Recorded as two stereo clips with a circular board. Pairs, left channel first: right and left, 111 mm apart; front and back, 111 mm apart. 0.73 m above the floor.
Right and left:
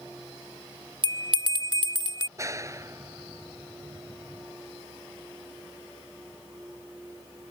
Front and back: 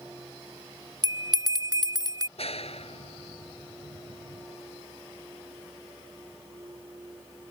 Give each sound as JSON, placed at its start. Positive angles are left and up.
{"t": 1.0, "sound": "a bell", "azimuth_deg": 130}
{"t": 2.4, "sound": "a clap", "azimuth_deg": 25}